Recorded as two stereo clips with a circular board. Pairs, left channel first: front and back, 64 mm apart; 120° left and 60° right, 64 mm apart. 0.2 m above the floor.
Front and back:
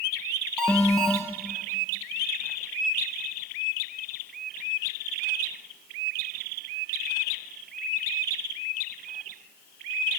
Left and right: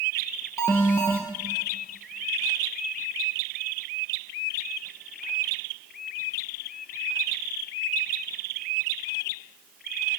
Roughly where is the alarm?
Left.